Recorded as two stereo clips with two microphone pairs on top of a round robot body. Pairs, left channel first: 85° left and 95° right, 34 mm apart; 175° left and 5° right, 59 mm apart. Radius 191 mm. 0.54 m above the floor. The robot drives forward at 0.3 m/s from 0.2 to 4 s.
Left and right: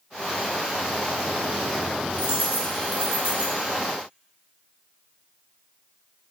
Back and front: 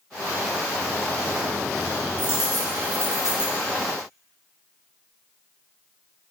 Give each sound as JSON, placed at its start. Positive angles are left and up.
{"t": 2.2, "sound": "a dropped coin", "azimuth_deg": -75, "distance_m": 3.0}